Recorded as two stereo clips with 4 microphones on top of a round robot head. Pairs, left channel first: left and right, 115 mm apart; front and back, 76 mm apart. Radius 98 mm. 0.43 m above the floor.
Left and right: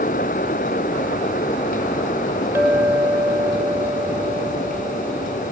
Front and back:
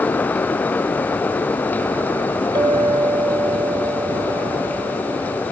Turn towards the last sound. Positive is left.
turn(degrees=-165)